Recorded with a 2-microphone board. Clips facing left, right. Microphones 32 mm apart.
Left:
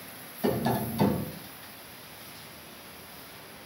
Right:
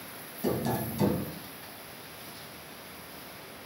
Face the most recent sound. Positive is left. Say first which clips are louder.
# left 3 dB
turn(degrees=25)  # may be behind; listen again after turning